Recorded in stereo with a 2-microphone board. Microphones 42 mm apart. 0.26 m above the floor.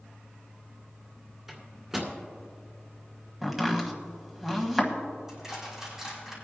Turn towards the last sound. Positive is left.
turn(degrees=-10)  # may be behind; listen again after turning